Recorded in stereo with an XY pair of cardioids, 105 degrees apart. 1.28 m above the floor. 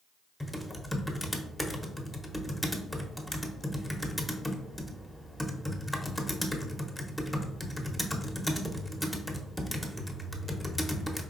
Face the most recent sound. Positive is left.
turn(degrees=5)